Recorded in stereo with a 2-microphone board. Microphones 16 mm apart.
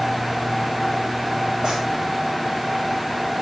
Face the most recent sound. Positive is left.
turn(degrees=-70)  # may be behind; listen again after turning